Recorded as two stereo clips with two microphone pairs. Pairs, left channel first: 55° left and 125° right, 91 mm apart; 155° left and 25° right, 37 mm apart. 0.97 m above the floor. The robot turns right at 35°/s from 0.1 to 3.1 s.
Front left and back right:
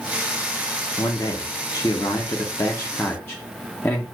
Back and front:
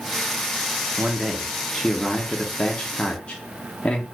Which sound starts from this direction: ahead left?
A man speaking, at 1.0 s.